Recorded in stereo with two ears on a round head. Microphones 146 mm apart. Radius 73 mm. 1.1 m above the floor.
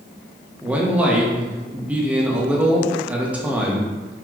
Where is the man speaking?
10° right (ahead or behind), 0.8 m.